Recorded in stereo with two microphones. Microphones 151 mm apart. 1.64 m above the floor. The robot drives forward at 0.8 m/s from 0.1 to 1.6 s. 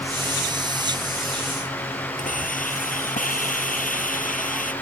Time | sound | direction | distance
2.2 | a hiss | 60° left (ahead or behind) | ?